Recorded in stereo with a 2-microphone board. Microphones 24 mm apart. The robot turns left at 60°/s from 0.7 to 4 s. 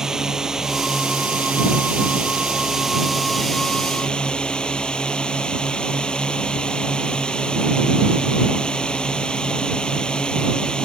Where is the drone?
30° right; by 10.9 s 135° left.